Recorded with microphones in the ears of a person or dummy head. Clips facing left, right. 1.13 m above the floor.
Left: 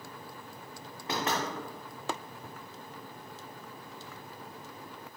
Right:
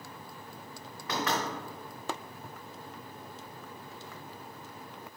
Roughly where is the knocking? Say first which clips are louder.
Even; left.